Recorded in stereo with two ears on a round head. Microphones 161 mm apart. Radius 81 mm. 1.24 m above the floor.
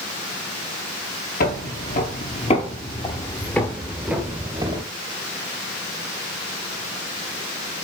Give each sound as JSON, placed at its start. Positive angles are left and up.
{"t": 1.4, "sound": "footsteps", "side_deg": 50, "distance_m": 2.0}